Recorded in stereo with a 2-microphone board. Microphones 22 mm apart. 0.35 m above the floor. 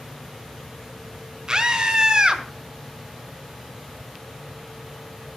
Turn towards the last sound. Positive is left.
turn(degrees=-30)  # may be behind; listen again after turning